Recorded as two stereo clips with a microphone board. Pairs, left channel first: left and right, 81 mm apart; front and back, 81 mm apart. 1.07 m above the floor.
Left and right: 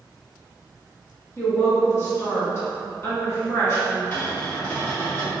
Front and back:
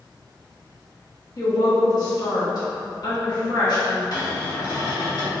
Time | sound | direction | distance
1.4 | a woman speaking | 35° left | 1.4 m
4.1 | a cupboard door | 35° left | 1.5 m